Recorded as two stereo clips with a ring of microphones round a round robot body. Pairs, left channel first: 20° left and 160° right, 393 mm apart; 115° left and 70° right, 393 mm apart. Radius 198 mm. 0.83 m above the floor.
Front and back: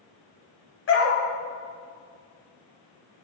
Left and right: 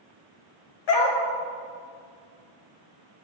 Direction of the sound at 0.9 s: 80° left.